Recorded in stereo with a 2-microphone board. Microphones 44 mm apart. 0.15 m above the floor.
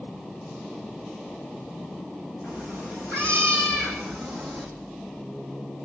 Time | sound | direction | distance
2.4 | a cat meowing | 35° left (ahead or behind) | 4.5 m